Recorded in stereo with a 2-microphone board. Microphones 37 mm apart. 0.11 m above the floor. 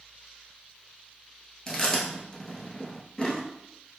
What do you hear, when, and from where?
1.7 s chewing: 20° left (ahead or behind), 0.7 m